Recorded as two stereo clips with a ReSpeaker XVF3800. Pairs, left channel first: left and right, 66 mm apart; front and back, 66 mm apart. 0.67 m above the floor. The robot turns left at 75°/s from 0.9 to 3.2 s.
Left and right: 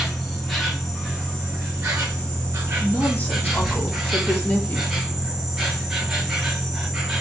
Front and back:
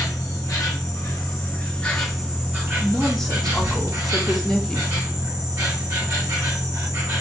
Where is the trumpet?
I don't hear a trumpet.